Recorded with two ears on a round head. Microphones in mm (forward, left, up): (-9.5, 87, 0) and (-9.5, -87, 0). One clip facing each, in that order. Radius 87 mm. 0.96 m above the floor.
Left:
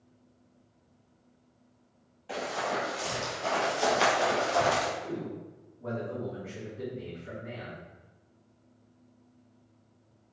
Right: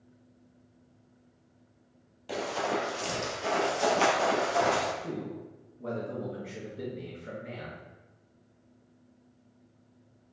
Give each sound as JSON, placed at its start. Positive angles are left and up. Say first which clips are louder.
{"t": 2.3, "sound": "running footsteps", "louder": "right 2 dB", "side_deg": -50, "distance_m": 1.5}
{"t": 5.0, "sound": "a man speaking", "louder": "even", "side_deg": -45, "distance_m": 0.9}